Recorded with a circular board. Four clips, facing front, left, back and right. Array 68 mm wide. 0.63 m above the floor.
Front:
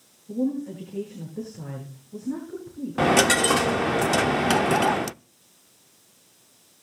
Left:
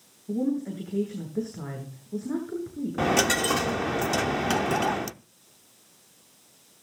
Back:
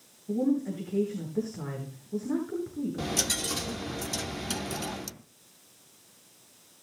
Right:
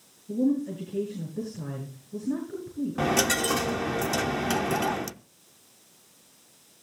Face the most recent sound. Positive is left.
turn(degrees=10)